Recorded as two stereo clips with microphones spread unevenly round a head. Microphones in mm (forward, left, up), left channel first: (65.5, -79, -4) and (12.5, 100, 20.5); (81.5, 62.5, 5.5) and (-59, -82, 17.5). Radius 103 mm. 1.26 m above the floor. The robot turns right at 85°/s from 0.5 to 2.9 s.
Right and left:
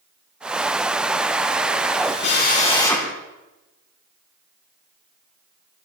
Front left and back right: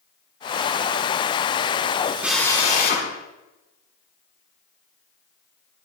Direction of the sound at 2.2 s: 50° right.